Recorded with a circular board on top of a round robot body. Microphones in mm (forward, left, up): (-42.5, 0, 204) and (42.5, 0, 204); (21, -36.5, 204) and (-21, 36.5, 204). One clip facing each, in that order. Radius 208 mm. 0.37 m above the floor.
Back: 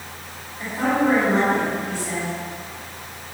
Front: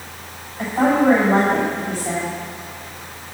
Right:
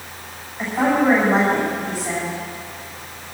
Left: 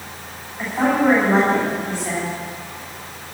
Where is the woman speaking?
30° left, 5 m.